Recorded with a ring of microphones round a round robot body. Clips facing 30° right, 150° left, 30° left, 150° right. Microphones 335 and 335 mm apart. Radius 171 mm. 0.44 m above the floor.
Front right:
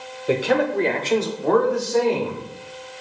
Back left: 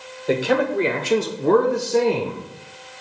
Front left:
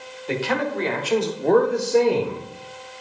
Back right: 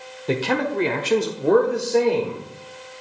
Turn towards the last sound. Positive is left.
turn(degrees=95)